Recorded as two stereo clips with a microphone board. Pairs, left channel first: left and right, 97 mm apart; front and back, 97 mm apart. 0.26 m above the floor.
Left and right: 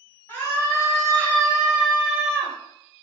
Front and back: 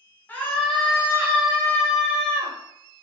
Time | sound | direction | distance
0.3 | a scream | 45° left | 1.1 m